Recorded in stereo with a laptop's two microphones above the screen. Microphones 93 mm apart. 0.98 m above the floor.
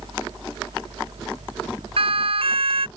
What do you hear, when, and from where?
0.0 s a fan: 60° right (ahead or behind)
2.0 s a siren: 70° right (ahead or behind)